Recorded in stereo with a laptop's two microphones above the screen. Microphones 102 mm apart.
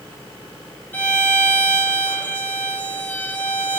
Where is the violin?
15° left (ahead or behind), 0.9 m.